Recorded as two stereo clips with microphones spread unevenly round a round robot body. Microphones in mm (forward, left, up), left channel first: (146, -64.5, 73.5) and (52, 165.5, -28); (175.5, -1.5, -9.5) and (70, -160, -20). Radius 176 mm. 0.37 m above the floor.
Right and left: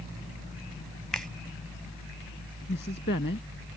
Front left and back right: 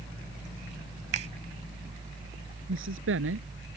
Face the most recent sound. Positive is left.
turn(degrees=-130)